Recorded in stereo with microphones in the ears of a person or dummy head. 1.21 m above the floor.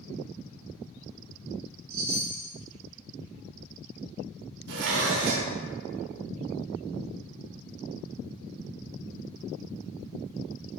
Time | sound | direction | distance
1.9 | a chime | 20° right (ahead or behind) | 2.0 m
4.7 | dishes clattering | 60° right (ahead or behind) | 0.8 m